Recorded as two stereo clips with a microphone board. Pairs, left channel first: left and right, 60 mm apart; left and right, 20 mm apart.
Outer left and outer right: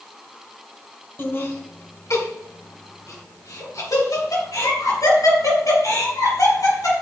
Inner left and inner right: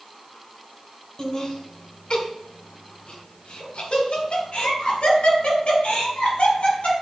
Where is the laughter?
40° left (ahead or behind), 1.6 m; by 6.9 s 80° left, 5.5 m.